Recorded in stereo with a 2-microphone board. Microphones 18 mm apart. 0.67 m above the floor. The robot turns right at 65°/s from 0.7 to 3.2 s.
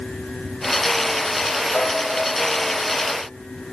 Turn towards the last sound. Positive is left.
turn(degrees=-170)